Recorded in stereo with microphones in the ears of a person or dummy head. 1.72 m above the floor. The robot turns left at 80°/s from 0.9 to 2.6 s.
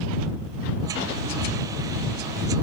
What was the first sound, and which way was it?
Only background noise.